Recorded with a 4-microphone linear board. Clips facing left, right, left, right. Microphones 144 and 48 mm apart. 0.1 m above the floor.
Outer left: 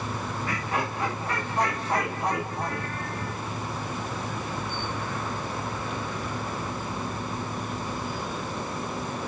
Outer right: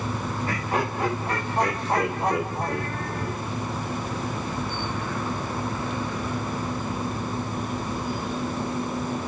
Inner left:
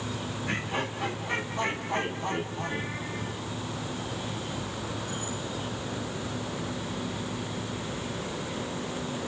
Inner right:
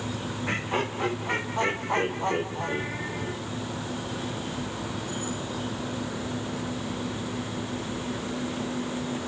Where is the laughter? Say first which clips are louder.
Outer right 3 dB, inner right 3 dB; 30° right (ahead or behind), 6.5 m.